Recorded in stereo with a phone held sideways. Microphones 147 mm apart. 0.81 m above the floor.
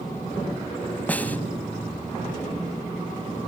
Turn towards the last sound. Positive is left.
turn(degrees=10)  # may be behind; listen again after turning